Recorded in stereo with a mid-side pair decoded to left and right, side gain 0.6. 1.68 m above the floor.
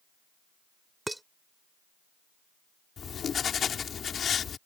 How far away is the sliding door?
No sliding door in this recording.